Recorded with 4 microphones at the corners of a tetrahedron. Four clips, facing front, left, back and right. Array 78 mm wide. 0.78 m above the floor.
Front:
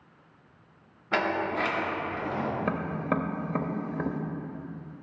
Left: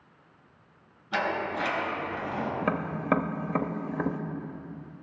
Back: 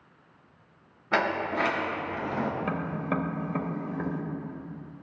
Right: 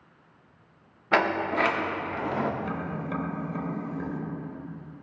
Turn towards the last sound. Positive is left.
turn(degrees=70)